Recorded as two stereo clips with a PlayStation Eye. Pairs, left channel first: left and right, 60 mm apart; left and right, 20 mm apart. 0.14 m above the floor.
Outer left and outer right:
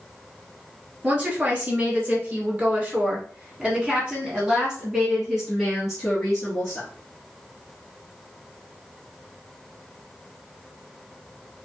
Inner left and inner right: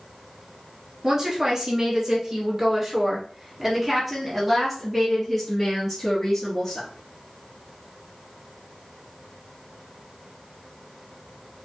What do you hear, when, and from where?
1.0 s a woman speaking: 35° right (ahead or behind), 2 m; by 6.9 s 5° left (ahead or behind), 2.5 m